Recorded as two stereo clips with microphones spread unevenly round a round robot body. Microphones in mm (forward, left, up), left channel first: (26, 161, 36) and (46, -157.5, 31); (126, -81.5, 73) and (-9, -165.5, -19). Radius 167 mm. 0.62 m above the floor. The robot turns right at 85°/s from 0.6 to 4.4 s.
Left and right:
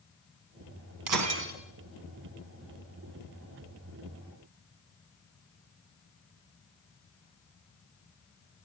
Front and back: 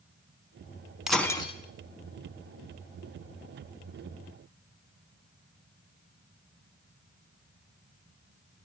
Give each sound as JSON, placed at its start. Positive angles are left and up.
{"t": 1.1, "sound": "breaking glass", "azimuth_deg": -65, "distance_m": 3.5}